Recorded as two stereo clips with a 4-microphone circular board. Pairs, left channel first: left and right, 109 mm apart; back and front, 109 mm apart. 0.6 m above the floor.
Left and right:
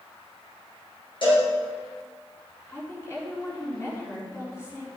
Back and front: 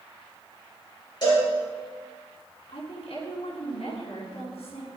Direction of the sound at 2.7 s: 155° left.